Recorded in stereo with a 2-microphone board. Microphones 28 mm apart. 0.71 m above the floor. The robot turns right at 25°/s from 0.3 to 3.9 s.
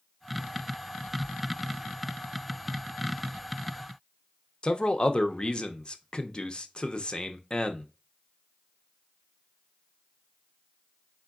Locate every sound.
4.6 s a man speaking: 30° left (ahead or behind), 0.5 m